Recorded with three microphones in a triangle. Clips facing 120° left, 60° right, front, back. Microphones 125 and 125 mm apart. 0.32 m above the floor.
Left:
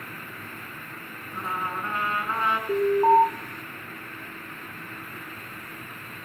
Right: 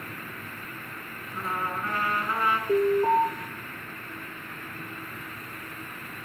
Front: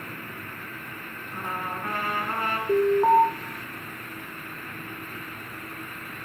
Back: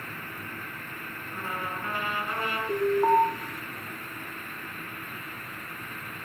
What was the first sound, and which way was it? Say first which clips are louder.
A trumpet: even, front 2 dB; 50° left.